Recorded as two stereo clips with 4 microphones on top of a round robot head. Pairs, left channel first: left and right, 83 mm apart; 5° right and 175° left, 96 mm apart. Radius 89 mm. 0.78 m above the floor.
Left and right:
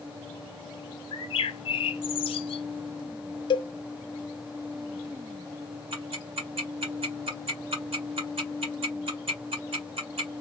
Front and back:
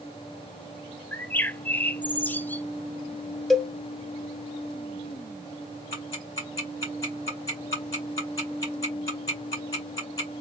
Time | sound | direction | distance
1.1 | a bird | 70° left | 0.6 m
3.5 | a cowbell | 85° left | 0.7 m
5.9 | ticking | 65° right | 1.9 m